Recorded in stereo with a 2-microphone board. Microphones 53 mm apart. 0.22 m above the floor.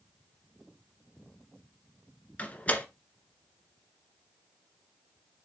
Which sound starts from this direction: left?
A door slam, at 2.4 s.